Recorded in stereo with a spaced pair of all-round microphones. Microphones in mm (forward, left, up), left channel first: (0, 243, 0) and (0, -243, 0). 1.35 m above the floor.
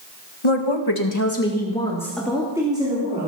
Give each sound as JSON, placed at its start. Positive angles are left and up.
{"t": 0.4, "sound": "a woman speaking", "side_deg": 75, "distance_m": 1.7}